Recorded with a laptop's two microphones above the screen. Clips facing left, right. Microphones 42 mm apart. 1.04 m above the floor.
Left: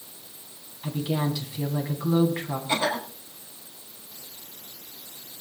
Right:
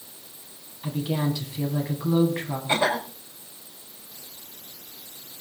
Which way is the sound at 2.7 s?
25° right (ahead or behind).